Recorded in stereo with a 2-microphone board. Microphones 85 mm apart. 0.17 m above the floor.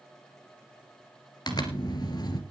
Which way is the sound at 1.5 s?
55° left (ahead or behind).